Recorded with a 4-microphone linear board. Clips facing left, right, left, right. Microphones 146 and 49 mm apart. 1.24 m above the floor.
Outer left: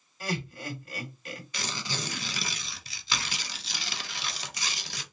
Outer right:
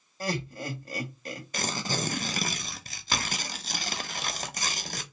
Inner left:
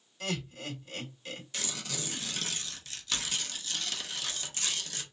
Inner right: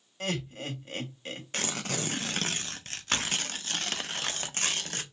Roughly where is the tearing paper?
Right.